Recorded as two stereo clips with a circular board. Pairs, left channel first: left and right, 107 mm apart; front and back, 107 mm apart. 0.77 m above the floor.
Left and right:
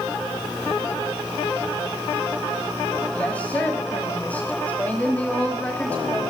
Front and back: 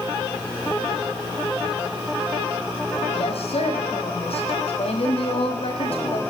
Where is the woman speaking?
15° left, 6 m.